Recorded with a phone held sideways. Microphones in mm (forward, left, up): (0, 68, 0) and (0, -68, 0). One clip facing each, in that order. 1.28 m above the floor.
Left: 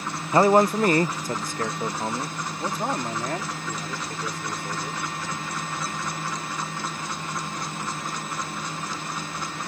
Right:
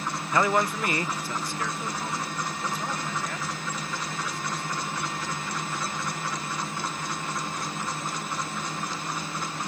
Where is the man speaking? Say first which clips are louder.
Left 7 dB; 30° left (ahead or behind); by 5.0 s 45° left (ahead or behind).